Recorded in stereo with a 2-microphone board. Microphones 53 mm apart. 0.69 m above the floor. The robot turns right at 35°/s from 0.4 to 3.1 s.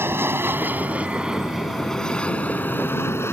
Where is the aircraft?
45° right (ahead or behind); by 3.3 s 50° left (ahead or behind).